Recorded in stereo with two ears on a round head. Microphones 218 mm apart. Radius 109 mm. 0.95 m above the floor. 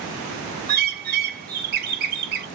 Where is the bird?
40° right (ahead or behind), 0.7 m.